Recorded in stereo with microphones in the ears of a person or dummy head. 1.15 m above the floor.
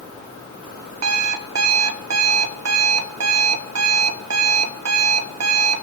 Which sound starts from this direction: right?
An alarm clock, at 1.0 s.